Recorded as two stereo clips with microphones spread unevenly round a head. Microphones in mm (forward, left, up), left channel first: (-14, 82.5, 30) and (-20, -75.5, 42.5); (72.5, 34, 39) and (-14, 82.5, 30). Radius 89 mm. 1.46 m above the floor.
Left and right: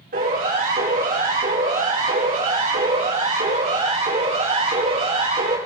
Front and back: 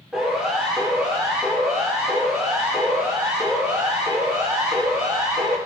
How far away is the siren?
About 7.5 m.